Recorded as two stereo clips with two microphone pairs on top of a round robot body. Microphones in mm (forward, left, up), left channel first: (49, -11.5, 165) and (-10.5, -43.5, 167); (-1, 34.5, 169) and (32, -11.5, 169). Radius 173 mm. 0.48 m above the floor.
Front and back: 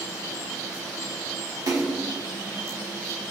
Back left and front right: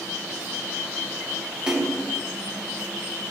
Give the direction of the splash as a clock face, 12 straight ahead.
4 o'clock.